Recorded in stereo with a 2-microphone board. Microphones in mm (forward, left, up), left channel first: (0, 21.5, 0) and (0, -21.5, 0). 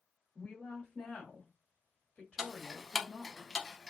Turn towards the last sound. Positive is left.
turn(degrees=-10)  # may be behind; listen again after turning